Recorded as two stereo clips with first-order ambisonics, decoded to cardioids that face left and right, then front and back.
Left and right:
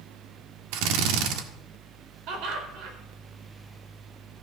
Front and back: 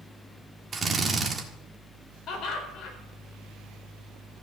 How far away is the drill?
About 1.6 m.